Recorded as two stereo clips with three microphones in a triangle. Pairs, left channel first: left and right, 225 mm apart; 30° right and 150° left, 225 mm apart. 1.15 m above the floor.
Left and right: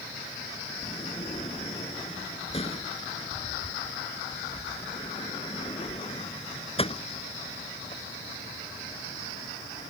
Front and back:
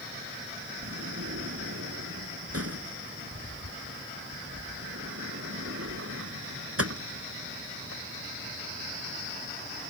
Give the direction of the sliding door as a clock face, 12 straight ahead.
7 o'clock.